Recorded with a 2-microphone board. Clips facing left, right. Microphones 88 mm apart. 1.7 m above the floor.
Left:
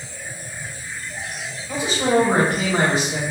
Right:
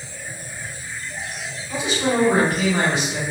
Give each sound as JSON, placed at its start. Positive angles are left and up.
{"t": 1.7, "sound": "a man speaking", "side_deg": 45, "distance_m": 1.5}